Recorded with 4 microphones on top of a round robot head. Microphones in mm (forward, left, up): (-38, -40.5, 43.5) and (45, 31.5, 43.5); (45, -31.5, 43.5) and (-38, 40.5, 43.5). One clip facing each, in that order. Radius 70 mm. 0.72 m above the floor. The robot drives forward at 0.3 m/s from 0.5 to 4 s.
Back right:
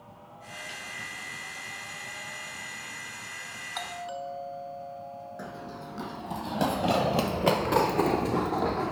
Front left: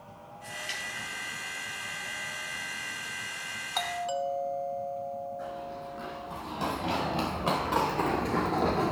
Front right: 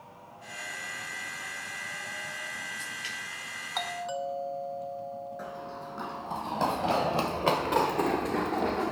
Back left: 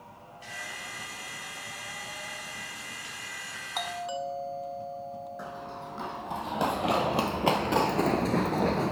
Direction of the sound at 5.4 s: 140° right.